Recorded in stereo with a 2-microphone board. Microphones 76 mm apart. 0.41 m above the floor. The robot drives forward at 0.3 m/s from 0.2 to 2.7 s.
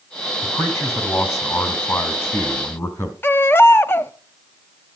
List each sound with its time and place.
0.4 s a man speaking: 35° left (ahead or behind), 3.5 m; by 3.1 s 45° left (ahead or behind), 3 m
3.2 s a baby crying: 30° left (ahead or behind), 0.7 m